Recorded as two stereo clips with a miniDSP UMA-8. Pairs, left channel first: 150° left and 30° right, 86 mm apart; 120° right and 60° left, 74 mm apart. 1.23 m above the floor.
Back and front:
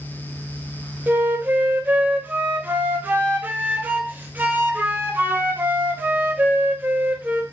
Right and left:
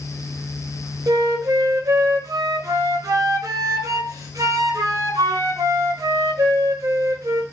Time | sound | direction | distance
1.1 | a flute | 35° left | 0.5 m